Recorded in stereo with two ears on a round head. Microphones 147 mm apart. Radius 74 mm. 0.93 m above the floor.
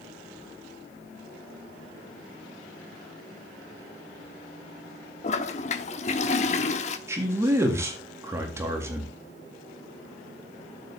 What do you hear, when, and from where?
5.2 s a toilet flushing: 40° left (ahead or behind), 1.0 m
7.1 s a man speaking: 15° right (ahead or behind), 1.9 m